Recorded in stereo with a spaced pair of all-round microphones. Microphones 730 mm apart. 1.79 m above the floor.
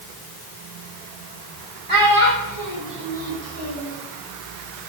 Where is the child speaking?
45° right (ahead or behind), 3 m; by 4.0 s 10° right (ahead or behind), 4.5 m.